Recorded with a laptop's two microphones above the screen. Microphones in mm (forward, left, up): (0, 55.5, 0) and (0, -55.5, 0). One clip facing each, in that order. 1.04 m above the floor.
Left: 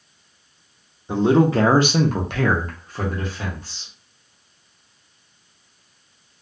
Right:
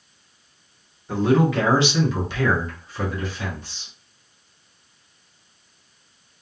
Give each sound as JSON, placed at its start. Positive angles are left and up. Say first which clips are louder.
{"t": 1.1, "sound": "a man speaking", "louder": "left 3 dB", "side_deg": 20, "distance_m": 0.8}